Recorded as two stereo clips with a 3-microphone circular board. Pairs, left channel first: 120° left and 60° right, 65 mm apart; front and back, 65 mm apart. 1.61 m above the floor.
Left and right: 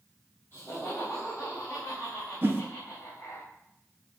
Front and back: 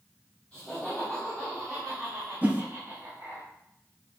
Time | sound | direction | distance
0.5 | laughter | 75° left | 4.5 m
2.4 | a whoosh | 115° right | 1.0 m